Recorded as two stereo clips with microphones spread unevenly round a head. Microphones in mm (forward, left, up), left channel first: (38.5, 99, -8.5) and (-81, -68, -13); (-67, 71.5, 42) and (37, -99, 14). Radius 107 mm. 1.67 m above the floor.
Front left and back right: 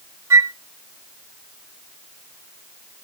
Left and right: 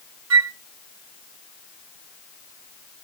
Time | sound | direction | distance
0.3 | a flute | 45° right | 0.8 m